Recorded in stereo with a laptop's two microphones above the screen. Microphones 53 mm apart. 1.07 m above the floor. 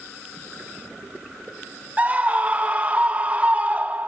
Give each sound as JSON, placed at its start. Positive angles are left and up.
{"t": 2.0, "sound": "a scream", "side_deg": -30, "distance_m": 1.7}